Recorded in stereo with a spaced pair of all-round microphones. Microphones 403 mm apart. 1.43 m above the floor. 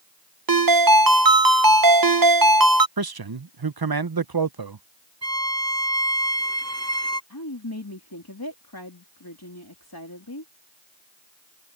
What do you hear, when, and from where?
0.5 s a ringtone: 55° right (ahead or behind)
3.0 s a man speaking: 60° right (ahead or behind)
5.2 s a violin: 40° right (ahead or behind)
7.3 s a woman speaking: 60° left (ahead or behind)